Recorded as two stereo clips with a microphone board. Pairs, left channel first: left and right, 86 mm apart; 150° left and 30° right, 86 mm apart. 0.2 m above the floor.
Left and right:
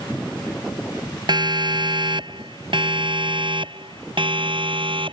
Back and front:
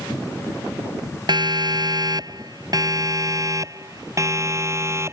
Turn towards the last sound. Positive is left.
turn(degrees=-90)